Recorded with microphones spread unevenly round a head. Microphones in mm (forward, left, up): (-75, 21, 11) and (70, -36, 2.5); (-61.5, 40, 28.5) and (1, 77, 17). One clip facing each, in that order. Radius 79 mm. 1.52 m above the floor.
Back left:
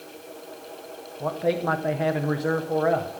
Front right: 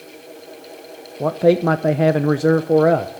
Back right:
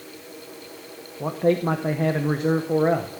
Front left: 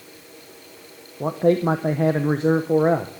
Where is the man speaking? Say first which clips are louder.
Front right 9 dB, front left 2 dB; 50° right, 0.7 m.